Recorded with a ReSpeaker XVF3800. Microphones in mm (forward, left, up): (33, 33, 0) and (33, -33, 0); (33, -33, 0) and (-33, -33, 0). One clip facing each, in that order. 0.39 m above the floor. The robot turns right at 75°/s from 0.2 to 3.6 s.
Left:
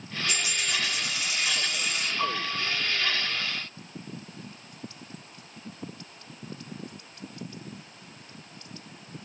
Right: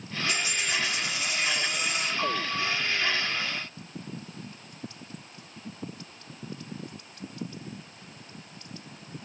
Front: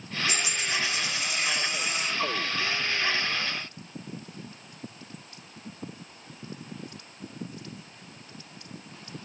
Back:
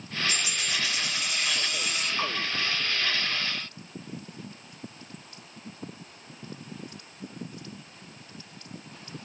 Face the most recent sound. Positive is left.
turn(degrees=-65)